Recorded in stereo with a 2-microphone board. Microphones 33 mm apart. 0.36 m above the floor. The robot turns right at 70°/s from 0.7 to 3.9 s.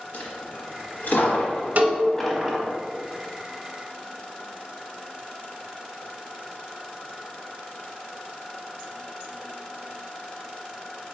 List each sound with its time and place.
0.1 s a dropped coin: 70° left (ahead or behind), 1.0 m; by 2.8 s 35° right (ahead or behind), 1.0 m
1.8 s a cowbell: 50° right (ahead or behind), 0.6 m; by 2.0 s 30° right (ahead or behind), 0.6 m